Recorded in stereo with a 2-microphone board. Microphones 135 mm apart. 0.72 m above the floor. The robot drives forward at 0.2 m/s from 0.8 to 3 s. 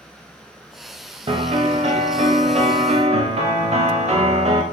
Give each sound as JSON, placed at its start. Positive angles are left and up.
{"t": 1.3, "sound": "a piano", "side_deg": -45, "distance_m": 0.7}